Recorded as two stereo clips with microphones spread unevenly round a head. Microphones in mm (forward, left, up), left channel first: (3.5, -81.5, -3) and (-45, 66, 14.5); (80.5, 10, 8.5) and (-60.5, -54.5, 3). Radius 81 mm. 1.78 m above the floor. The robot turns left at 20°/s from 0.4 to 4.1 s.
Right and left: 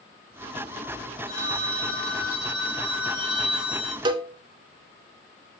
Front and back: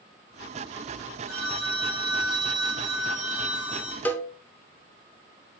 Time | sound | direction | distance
1.3 | a phone ringing | 120° right | 4 m
4.0 | a cowbell | 90° left | 0.6 m